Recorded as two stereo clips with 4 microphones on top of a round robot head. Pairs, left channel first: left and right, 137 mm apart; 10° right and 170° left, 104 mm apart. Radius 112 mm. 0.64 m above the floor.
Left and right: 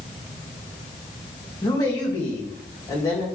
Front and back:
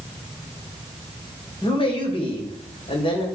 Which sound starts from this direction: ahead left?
A man speaking, at 1.6 s.